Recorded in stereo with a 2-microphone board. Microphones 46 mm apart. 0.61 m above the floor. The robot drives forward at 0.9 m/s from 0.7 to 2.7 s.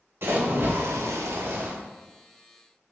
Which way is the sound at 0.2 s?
60° right (ahead or behind).